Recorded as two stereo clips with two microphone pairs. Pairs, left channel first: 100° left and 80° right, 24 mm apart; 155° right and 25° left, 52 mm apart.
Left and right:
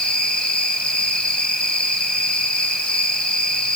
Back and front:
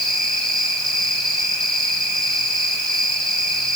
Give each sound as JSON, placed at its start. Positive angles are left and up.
{"t": 0.0, "sound": "an insect", "azimuth_deg": 125, "distance_m": 6.0}